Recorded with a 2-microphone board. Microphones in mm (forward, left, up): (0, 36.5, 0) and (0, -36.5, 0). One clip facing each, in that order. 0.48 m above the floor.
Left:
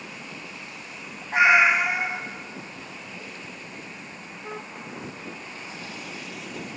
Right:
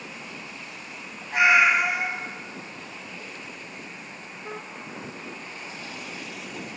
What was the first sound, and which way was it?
A cat meowing, 30° left (ahead or behind).